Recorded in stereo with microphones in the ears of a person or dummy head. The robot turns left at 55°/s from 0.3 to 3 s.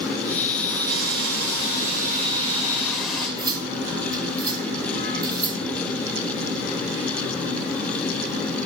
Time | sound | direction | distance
0.9 | frying | 60° right | 8 m
3.4 | cutlery clinking | 15° right (ahead or behind) | 2.5 m